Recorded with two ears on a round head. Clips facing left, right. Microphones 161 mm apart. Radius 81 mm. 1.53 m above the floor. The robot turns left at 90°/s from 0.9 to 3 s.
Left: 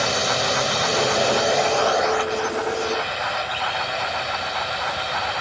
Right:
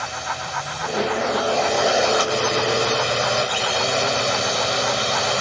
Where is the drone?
70° left; by 5.4 s 120° right.